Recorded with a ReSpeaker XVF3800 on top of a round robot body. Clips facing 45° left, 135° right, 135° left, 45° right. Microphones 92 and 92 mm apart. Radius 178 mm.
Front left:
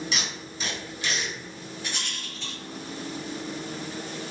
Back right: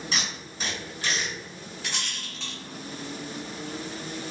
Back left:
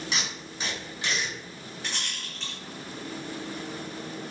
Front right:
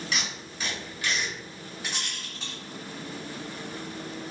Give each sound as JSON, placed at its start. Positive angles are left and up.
{"t": 0.1, "sound": "tape being pulled", "azimuth_deg": -165, "distance_m": 1.7}
{"t": 1.8, "sound": "a rattle", "azimuth_deg": -130, "distance_m": 0.7}